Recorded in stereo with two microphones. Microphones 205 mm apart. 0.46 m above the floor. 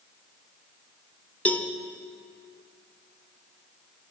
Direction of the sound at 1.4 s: 5° left (ahead or behind).